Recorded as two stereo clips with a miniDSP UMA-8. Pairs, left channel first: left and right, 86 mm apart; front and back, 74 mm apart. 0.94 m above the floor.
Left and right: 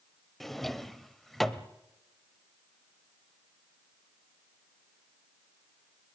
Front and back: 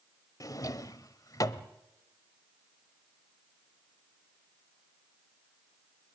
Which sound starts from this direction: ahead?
A drawer, at 0.4 s.